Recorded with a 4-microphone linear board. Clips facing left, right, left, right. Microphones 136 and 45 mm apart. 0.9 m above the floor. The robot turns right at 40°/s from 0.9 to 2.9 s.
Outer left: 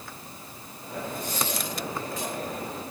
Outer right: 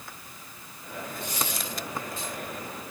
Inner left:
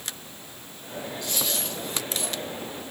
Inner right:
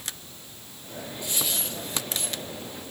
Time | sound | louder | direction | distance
1.2 | a dropped coin | outer left 3 dB, even | 25° right (ahead or behind) | 4 m